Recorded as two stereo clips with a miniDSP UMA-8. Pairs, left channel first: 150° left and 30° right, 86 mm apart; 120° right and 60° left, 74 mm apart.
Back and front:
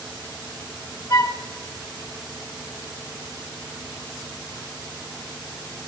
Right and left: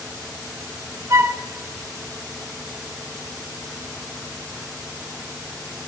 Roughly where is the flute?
Left.